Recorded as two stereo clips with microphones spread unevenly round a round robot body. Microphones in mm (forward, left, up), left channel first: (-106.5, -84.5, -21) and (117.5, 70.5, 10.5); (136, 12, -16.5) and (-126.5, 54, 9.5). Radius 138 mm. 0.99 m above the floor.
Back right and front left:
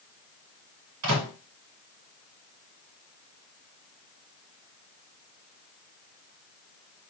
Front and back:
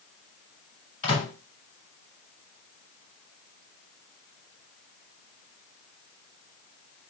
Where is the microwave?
60° left, 1.7 m.